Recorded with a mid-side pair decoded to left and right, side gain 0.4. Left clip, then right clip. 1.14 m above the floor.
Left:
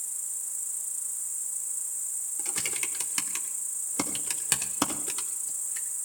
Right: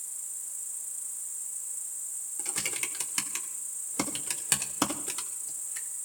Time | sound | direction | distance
0.0 | an insect | 35° left | 0.9 m
2.4 | typing on a keyboard | 5° left | 2.5 m